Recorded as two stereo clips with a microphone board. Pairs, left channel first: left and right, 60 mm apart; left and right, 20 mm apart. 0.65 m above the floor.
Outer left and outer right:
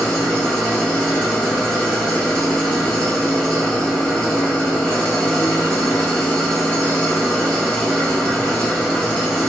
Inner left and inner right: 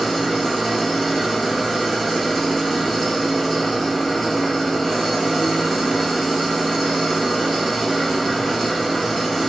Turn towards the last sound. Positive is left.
turn(degrees=15)  # may be behind; listen again after turning